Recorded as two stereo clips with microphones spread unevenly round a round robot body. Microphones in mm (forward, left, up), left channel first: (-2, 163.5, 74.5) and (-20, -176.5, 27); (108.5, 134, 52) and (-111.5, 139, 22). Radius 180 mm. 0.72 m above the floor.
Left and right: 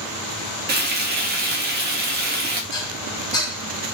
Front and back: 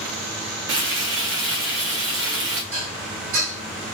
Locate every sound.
0.7 s frying: 150° right, 0.6 m
2.7 s dishes clattering: 170° left, 1.6 m